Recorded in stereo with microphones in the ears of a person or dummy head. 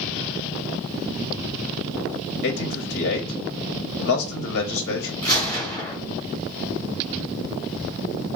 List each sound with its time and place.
2.4 s a man speaking: 55° left (ahead or behind), 0.7 m
5.2 s a gunshot: 20° left (ahead or behind), 1.6 m